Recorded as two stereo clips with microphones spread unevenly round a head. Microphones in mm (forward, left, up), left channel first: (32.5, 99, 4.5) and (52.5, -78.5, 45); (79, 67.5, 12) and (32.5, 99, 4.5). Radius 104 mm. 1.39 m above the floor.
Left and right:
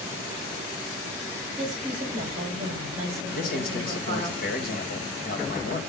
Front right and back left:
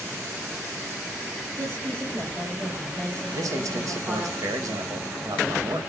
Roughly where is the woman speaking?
Behind right.